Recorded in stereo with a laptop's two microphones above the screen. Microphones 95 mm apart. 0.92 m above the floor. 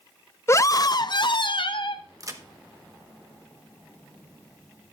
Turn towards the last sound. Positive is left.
turn(degrees=-35)  # may be behind; listen again after turning